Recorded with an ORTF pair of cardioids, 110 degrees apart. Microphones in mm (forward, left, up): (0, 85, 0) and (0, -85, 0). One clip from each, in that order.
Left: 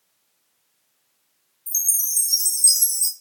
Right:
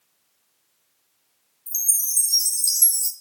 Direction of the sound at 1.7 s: 10° left.